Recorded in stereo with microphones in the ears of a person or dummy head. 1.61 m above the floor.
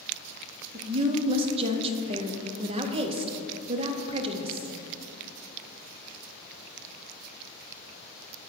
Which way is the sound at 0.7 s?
35° right (ahead or behind).